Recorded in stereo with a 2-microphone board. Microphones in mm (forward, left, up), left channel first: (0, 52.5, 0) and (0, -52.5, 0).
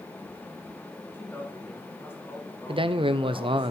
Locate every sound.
1.1 s a man speaking: 20° left (ahead or behind), 6.5 m
2.7 s a man speaking: 55° right (ahead or behind), 0.6 m